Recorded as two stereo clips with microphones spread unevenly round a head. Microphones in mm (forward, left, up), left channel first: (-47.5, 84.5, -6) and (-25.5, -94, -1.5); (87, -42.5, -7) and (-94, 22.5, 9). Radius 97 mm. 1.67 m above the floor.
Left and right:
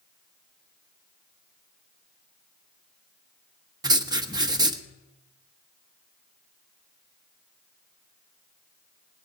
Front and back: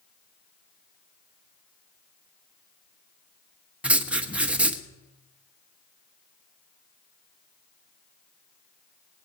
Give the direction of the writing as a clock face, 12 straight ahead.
4 o'clock.